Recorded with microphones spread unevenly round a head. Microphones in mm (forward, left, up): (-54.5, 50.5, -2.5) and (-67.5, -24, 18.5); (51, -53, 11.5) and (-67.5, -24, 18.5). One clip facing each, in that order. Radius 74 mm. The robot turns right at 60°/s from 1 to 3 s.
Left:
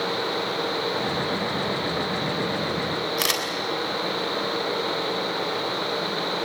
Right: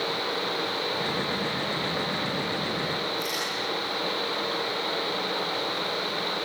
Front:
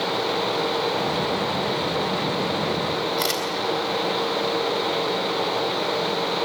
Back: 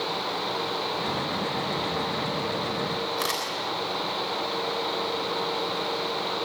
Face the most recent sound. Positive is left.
turn(degrees=70)